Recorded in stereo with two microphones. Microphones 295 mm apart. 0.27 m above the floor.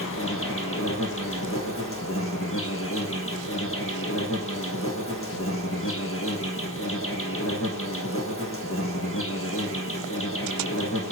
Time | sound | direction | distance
0.0 | an insect | 45° left (ahead or behind) | 1.8 m